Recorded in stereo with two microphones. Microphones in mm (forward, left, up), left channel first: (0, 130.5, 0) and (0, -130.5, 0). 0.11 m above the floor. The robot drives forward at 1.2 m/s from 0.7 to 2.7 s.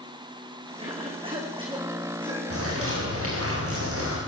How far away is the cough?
About 8 m.